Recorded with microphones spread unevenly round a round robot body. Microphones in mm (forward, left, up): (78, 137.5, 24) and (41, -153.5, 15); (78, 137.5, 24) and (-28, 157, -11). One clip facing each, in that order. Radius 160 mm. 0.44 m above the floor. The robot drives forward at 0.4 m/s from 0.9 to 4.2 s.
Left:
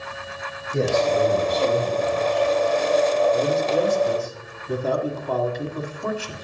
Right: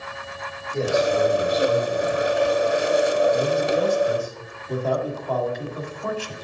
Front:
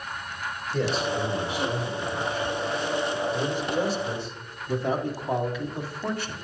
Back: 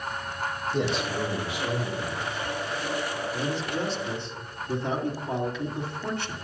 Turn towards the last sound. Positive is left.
turn(degrees=100)